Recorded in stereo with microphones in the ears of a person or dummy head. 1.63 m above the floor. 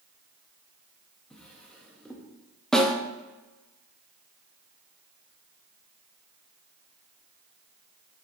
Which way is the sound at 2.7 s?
5° left (ahead or behind).